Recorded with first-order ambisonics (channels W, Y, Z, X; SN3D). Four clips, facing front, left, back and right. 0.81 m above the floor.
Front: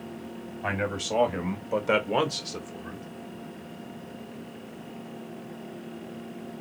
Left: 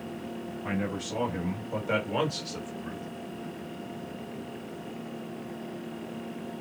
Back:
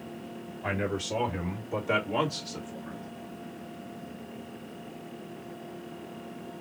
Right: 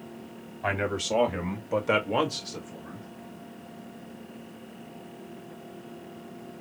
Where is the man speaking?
60° right, 2 m; by 3.0 s 35° left, 1.2 m.